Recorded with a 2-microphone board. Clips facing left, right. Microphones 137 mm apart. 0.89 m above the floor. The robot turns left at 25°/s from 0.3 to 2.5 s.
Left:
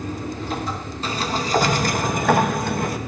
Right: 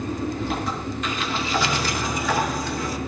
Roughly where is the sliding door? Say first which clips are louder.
Left 5 dB; behind left.